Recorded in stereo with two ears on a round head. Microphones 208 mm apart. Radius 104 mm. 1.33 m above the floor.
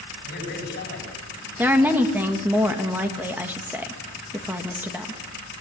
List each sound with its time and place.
0.2 s a man speaking: 45° left (ahead or behind), 8 m
1.6 s a woman speaking: 10° right (ahead or behind), 1.7 m